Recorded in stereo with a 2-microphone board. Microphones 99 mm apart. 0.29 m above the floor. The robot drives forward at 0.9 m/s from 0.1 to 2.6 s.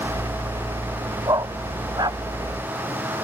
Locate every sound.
1.3 s a dog barking: 40° right (ahead or behind); by 2.2 s 45° right (ahead or behind)